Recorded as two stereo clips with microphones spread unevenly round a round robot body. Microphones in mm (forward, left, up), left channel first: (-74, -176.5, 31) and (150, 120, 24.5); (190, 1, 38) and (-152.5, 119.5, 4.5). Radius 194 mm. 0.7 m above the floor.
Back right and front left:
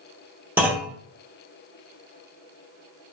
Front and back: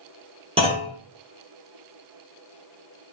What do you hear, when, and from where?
0.6 s a clunk: 130° left, 0.6 m